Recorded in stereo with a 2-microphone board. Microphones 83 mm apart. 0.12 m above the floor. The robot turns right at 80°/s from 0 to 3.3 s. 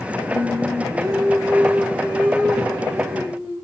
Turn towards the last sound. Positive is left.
turn(degrees=20)